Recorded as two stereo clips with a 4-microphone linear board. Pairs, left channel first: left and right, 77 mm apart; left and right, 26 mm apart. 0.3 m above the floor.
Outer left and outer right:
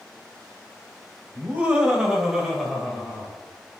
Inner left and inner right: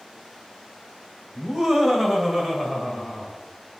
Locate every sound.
1.4 s laughter: 25° right (ahead or behind), 1.0 m; by 3.8 s 10° left (ahead or behind), 2.5 m